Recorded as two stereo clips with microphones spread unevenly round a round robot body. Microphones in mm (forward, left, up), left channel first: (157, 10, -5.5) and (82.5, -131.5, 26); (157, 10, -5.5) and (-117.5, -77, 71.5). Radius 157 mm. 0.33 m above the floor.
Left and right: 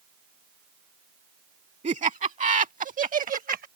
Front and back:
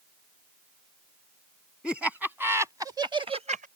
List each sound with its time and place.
1.8 s laughter: 70° right; by 3.7 s 90° right